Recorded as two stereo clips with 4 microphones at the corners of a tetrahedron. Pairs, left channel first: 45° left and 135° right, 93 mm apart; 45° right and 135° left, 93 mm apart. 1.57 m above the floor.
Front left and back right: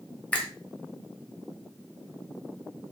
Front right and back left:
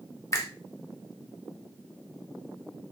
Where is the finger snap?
20° right, 0.8 m.